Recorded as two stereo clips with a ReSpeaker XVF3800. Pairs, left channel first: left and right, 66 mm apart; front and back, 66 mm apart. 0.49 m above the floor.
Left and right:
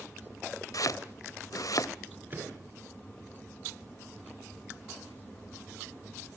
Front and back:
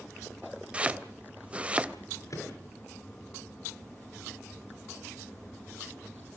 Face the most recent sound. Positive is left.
turn(degrees=-30)